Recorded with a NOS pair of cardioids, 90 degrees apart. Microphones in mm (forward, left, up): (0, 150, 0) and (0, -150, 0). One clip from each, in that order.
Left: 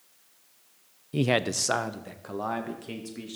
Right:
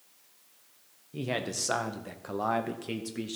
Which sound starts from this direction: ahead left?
A man speaking, at 1.1 s.